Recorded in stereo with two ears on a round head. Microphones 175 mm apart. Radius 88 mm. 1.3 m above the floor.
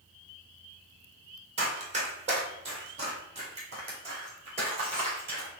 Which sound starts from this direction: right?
Running footsteps, at 1.6 s.